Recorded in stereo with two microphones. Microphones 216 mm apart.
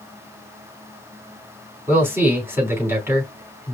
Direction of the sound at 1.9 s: 10° right (ahead or behind).